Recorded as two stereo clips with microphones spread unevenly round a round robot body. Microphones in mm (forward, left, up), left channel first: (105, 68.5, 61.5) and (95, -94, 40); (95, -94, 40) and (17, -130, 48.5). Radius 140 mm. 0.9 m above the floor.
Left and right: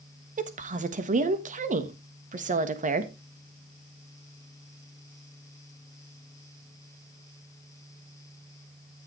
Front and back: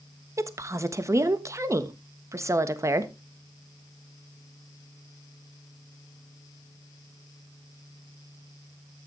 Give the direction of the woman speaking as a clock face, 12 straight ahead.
3 o'clock.